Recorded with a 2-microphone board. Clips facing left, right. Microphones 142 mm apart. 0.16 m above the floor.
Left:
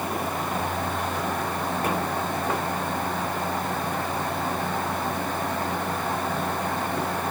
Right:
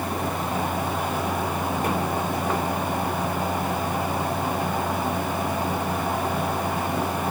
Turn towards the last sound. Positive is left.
No sound to turn to.